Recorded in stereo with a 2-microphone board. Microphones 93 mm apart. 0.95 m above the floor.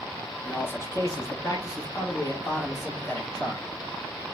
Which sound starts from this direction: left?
A man speaking, at 0.4 s.